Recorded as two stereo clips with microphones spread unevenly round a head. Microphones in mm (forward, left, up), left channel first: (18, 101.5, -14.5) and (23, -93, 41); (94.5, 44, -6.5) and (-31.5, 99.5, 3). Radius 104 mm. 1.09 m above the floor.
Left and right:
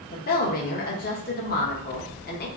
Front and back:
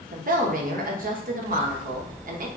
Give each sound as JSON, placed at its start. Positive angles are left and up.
{"t": 0.1, "sound": "a woman speaking", "azimuth_deg": 135, "distance_m": 0.9}